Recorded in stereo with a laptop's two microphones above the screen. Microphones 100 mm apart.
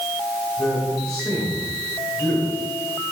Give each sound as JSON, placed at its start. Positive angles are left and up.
{"t": 0.6, "sound": "a man speaking", "side_deg": 30, "distance_m": 4.5}